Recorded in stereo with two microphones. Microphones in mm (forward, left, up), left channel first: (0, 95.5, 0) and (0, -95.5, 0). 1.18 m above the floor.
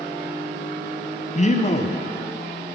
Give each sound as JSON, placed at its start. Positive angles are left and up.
{"t": 1.4, "sound": "a man speaking", "side_deg": 35, "distance_m": 0.7}